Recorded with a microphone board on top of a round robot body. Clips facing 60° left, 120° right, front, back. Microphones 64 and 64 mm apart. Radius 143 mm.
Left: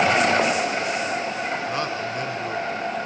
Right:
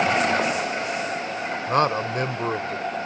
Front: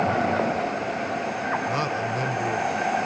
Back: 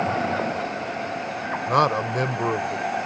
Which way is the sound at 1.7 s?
160° right.